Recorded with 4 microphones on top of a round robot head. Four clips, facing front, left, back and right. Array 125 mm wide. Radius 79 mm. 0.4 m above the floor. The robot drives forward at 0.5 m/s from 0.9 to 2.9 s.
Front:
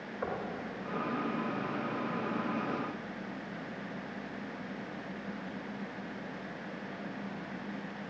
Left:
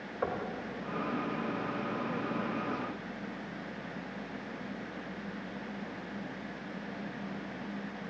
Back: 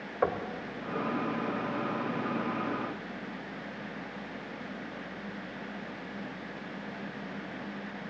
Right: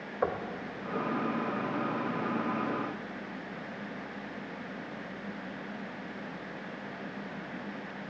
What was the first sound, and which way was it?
Knocking, 150° right.